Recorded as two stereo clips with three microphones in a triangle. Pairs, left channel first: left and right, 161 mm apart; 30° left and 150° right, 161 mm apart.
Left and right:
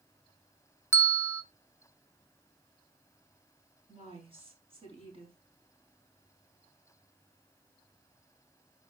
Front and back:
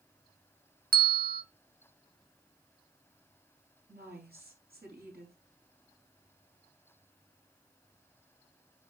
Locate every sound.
0.9 s a bell: 165° right, 0.6 m
3.9 s a woman speaking: 145° right, 4.5 m